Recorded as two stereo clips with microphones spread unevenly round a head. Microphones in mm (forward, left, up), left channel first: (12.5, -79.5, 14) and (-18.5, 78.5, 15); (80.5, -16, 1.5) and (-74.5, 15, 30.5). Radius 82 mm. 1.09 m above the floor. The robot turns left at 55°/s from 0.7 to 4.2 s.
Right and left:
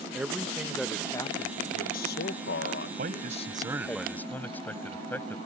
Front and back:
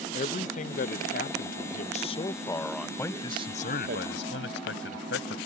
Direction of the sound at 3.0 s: 65° left.